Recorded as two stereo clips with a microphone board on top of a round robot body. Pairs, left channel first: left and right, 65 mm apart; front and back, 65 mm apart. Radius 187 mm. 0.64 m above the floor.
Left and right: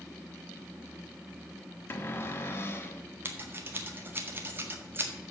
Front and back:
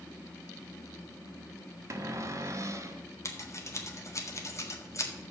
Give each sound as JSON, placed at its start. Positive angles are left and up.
{"t": 1.9, "sound": "a cupboard door", "azimuth_deg": 140, "distance_m": 1.2}
{"t": 3.2, "sound": "scissors", "azimuth_deg": -35, "distance_m": 1.8}